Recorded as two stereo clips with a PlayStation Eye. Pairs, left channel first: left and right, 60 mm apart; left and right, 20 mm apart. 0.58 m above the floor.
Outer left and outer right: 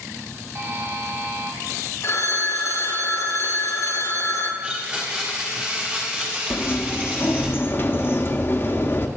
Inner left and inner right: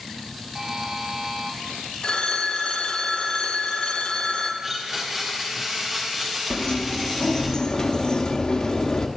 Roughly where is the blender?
Right.